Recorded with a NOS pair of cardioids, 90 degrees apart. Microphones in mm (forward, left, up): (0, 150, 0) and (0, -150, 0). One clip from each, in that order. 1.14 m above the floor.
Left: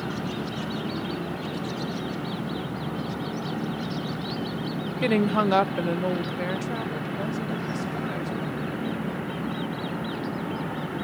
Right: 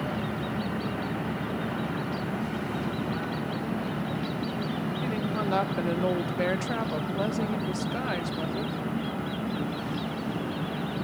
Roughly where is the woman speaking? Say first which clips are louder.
Left 11 dB; left.